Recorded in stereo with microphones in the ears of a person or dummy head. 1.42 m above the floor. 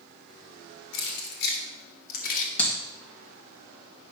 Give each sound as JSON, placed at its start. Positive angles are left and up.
{"t": 0.9, "sound": "keys jangling", "side_deg": 75, "distance_m": 2.5}
{"t": 2.6, "sound": "a clap", "side_deg": 10, "distance_m": 2.0}